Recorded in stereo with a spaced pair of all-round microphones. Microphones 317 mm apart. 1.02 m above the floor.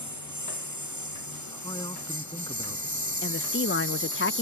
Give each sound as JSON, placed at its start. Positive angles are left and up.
{"t": 0.0, "sound": "a lawn mower", "side_deg": -65}
{"t": 1.5, "sound": "a man speaking", "side_deg": 15}
{"t": 3.2, "sound": "a woman speaking", "side_deg": 40}